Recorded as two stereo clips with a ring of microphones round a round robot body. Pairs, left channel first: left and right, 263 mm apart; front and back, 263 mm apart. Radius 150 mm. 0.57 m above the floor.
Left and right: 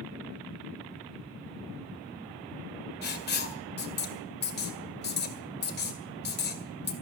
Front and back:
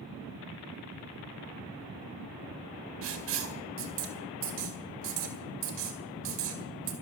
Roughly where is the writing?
Behind left.